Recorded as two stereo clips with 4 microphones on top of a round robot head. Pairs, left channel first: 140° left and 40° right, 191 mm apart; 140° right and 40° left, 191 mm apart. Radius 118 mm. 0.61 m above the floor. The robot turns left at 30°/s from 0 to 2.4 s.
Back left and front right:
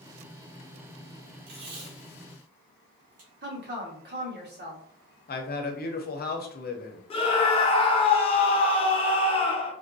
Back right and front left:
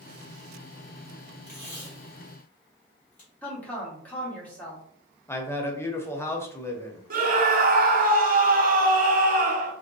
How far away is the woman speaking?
About 1.9 m.